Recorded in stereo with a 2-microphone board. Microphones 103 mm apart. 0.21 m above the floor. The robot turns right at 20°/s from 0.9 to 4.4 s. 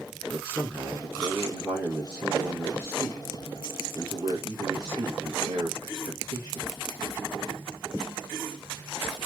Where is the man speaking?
170° left, 3 m; by 6.8 s 120° right, 3 m.